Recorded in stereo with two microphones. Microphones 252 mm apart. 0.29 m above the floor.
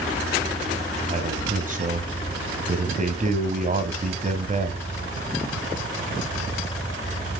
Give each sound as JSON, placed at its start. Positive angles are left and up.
{"t": 1.1, "sound": "a man speaking", "side_deg": -30, "distance_m": 1.6}